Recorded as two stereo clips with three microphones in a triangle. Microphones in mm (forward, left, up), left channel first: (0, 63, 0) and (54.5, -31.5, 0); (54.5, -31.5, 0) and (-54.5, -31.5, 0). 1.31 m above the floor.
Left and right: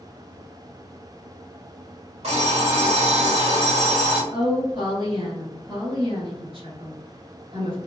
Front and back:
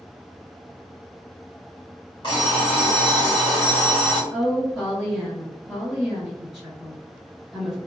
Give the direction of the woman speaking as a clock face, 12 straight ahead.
3 o'clock.